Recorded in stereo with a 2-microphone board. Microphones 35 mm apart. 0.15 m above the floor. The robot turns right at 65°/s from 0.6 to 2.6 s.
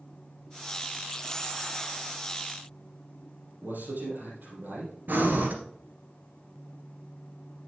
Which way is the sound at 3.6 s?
65° right (ahead or behind).